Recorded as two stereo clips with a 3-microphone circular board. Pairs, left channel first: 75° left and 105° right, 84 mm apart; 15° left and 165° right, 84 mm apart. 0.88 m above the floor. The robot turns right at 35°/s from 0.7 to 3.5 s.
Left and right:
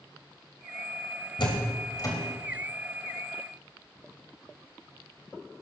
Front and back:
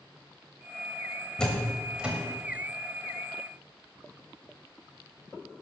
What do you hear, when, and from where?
1.4 s a door slam: 95° left, 3.5 m; by 2.1 s 120° left, 3.5 m